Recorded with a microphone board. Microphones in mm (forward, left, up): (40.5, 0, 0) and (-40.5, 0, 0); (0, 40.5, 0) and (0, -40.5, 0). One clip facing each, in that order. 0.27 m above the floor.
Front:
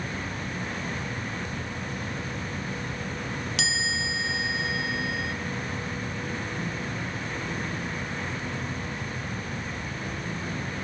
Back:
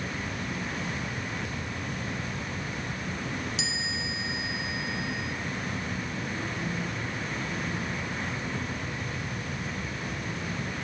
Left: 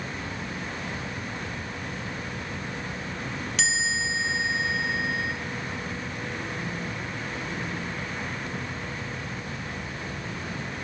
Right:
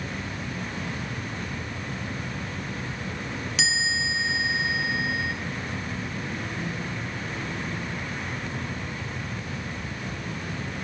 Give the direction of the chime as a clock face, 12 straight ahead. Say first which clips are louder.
Front 4 dB, right 1 dB; 12 o'clock.